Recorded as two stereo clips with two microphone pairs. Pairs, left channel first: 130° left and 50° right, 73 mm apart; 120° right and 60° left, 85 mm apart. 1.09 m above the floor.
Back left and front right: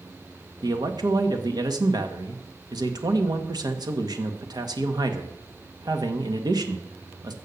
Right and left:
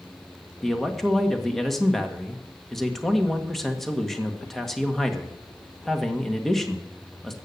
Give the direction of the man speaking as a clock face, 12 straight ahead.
1 o'clock.